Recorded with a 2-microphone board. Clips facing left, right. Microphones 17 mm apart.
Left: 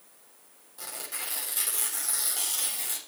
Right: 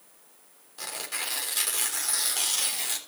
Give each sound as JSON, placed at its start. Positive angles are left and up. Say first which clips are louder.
{"t": 0.8, "sound": "tearing paper", "louder": "right 5 dB", "side_deg": -30, "distance_m": 3.5}